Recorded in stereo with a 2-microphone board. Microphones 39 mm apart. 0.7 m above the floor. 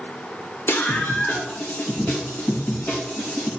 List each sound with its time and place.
0.7 s a scream: 70° left (ahead or behind), 1.6 m; by 3.5 s 55° left (ahead or behind), 4 m